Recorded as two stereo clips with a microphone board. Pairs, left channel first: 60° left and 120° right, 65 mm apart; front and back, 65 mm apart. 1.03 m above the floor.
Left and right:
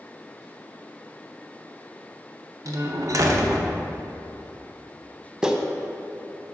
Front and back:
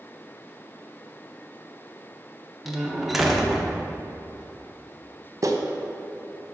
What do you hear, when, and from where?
2.6 s a door slam: 90° right, 0.7 m
5.4 s a clap: 160° left, 0.6 m